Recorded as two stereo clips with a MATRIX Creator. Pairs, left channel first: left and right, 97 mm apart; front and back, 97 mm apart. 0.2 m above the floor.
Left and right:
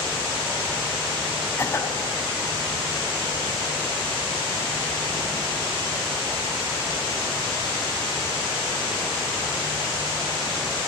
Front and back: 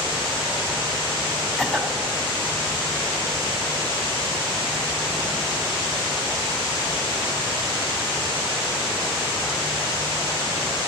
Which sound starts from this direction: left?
A cough, at 1.6 s.